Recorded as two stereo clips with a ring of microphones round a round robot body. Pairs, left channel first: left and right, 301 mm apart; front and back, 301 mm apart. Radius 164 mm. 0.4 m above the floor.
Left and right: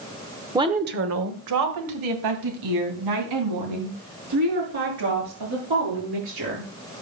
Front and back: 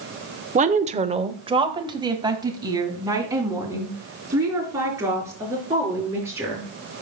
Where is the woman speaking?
155° right, 0.9 m; by 6.7 s 100° right, 7.5 m.